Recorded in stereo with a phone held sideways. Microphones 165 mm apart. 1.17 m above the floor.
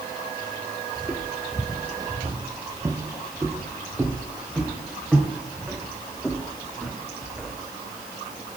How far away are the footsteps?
About 2 m.